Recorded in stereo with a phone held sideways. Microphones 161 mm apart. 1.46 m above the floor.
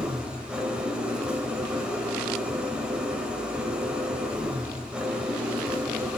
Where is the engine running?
5° right (ahead or behind), 2.5 m.